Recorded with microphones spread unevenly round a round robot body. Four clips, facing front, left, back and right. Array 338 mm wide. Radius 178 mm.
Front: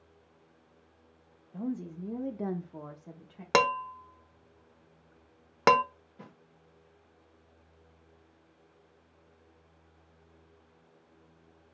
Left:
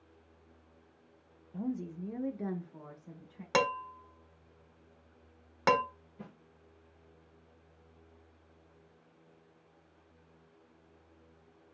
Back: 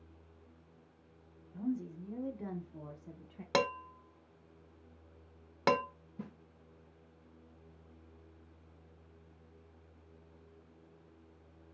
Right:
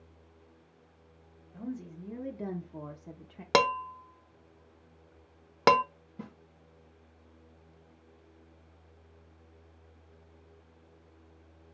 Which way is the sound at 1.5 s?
30° left.